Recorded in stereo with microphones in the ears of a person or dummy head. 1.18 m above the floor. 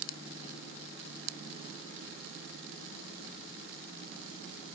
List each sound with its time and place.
Only background noise.